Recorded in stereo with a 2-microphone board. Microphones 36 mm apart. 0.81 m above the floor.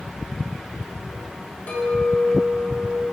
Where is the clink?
50° left (ahead or behind), 1.3 m.